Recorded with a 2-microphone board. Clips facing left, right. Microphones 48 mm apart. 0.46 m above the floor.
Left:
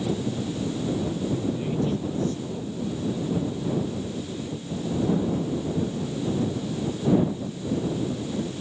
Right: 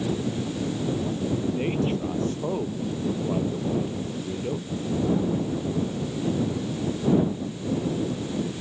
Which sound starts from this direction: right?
A man speaking, at 1.3 s.